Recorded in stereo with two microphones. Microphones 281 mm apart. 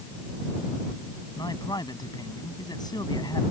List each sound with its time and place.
1.4 s a man speaking: 15° left (ahead or behind)